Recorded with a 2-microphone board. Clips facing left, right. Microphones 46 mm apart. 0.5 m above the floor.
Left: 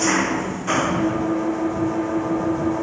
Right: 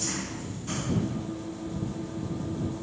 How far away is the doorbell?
No doorbell in this recording.